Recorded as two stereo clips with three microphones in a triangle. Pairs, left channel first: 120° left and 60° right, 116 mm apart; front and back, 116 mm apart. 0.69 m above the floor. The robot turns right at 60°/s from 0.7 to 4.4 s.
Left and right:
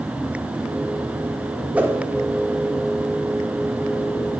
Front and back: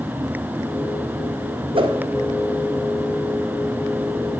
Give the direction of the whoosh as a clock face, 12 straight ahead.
5 o'clock.